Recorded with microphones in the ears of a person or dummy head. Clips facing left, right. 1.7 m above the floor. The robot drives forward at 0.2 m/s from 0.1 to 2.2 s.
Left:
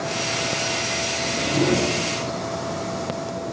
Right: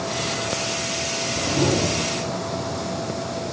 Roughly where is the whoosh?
Left.